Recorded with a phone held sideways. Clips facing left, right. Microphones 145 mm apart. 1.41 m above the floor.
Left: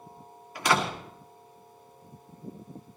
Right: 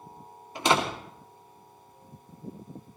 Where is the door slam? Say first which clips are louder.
Right 1 dB; 25° right (ahead or behind), 2.5 m.